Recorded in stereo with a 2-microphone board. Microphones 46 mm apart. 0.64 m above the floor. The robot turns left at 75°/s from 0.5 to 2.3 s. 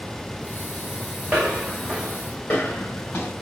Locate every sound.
1.3 s footsteps: 40° right (ahead or behind), 2 m; by 3.3 s 45° left (ahead or behind), 3 m